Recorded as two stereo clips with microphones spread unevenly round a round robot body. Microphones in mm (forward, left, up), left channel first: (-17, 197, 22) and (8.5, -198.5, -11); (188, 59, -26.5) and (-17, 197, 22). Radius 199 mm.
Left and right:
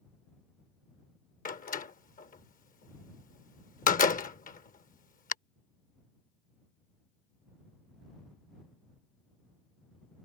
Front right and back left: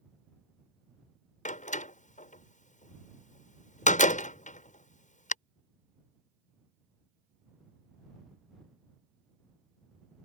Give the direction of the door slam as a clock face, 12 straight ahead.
11 o'clock.